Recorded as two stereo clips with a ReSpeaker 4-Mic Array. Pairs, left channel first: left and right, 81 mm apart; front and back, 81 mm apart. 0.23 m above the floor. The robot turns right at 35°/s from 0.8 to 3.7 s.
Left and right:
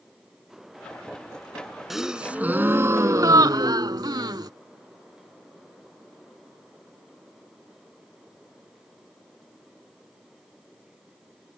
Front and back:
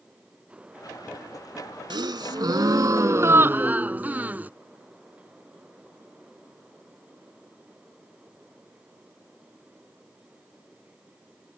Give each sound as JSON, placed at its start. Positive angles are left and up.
{"t": 1.9, "sound": "a gasp", "azimuth_deg": -175}